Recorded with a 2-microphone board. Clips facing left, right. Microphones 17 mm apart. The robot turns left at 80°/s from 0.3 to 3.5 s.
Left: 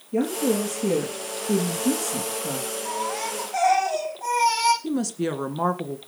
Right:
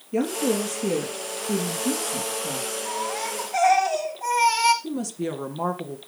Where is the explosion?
I don't hear an explosion.